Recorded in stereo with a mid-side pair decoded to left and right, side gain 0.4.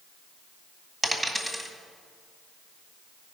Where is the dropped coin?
Straight ahead, 2 m.